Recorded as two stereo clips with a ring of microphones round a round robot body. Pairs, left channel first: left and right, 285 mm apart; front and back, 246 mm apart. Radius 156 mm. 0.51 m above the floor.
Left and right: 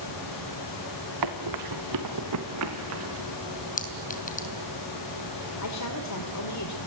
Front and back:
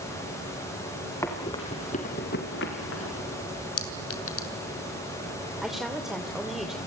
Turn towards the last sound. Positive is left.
turn(degrees=90)